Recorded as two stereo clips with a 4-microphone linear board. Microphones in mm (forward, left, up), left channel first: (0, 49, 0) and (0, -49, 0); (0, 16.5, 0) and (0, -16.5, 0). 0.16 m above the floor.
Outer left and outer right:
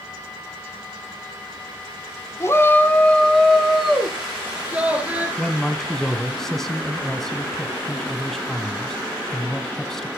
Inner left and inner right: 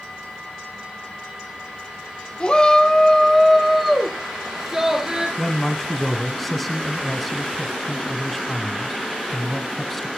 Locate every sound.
2.4 s a shout: 30° left (ahead or behind), 1.3 m; by 5.3 s 15° right (ahead or behind), 2.5 m
5.4 s a man speaking: 5° left (ahead or behind), 1.0 m